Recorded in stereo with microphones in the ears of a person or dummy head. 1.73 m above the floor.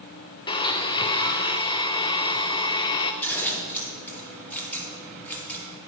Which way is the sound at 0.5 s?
25° left (ahead or behind).